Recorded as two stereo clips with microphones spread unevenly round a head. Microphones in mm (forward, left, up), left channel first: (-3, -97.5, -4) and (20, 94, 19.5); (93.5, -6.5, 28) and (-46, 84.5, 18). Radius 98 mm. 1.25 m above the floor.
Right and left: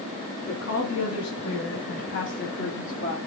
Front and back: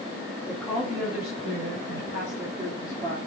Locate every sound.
0.5 s a woman speaking: 125° right, 4 m; by 3.2 s 155° right, 3.5 m